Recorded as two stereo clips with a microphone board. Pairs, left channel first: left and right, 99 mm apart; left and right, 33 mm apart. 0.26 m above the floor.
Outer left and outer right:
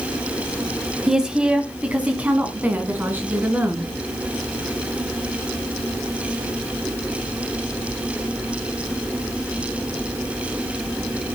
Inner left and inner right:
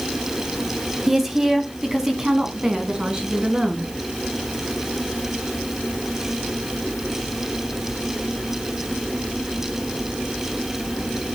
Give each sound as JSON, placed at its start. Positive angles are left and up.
{"t": 1.1, "sound": "a woman speaking", "side_deg": -5, "distance_m": 1.9}